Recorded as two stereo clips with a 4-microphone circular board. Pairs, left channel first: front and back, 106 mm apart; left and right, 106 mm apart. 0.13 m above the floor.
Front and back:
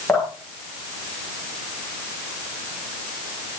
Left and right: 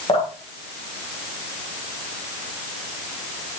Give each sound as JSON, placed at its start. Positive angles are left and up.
{"t": 0.1, "sound": "dripping", "azimuth_deg": 75, "distance_m": 9.0}